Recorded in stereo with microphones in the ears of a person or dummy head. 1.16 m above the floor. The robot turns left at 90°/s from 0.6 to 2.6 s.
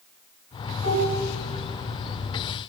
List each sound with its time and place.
0.8 s dishes clattering: 155° left, 3 m; by 1.2 s 120° left, 3 m